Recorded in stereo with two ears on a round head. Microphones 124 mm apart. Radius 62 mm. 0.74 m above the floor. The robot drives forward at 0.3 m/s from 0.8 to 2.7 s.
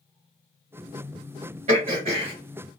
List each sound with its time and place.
1.7 s throat clearing: 45° right (ahead or behind), 2 m